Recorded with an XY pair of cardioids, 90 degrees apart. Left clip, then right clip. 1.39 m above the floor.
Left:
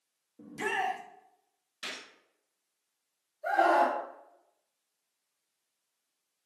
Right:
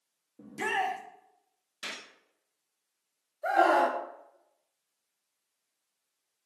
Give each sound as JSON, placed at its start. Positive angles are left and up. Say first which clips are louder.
{"t": 0.4, "sound": "a shout", "louder": "right 1 dB", "azimuth_deg": -15, "distance_m": 0.7}
{"t": 1.8, "sound": "a gunshot", "louder": "right 1 dB", "azimuth_deg": -25, "distance_m": 0.9}
{"t": 3.4, "sound": "a scream", "louder": "right 1 dB", "azimuth_deg": -65, "distance_m": 0.8}